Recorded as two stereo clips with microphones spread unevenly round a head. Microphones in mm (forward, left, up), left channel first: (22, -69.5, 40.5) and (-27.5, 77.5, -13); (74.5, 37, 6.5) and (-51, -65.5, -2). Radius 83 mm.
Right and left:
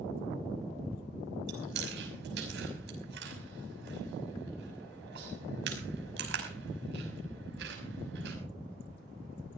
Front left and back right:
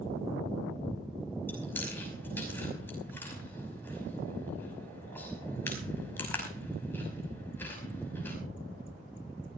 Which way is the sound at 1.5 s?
120° left.